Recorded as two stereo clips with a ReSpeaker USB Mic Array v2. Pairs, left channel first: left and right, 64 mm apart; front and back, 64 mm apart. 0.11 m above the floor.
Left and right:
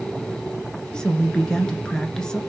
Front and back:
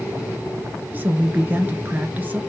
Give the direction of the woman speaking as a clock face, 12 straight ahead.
7 o'clock.